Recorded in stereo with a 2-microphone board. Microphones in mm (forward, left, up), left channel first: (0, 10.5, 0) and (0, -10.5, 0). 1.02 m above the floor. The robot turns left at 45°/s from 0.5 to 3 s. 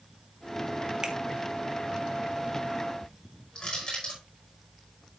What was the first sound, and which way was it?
A finger snap, 40° right (ahead or behind).